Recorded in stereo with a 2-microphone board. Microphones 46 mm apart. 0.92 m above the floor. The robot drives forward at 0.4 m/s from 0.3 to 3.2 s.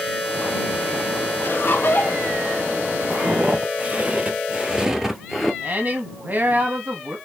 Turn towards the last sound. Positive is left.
turn(degrees=-45)  # may be behind; listen again after turning